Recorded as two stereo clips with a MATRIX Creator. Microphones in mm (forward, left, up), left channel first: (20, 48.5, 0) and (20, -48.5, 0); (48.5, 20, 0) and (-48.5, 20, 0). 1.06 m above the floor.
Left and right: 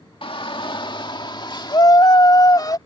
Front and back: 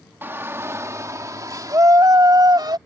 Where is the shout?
110° left; by 2.8 s 135° left.